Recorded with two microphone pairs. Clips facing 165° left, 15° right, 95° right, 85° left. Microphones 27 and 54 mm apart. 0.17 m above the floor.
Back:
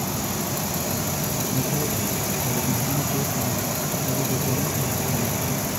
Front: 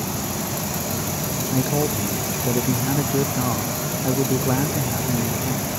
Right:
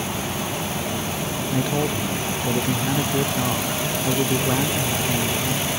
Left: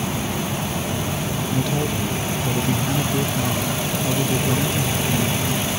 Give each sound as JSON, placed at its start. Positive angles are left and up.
{"t": 1.5, "sound": "a man speaking", "azimuth_deg": -15}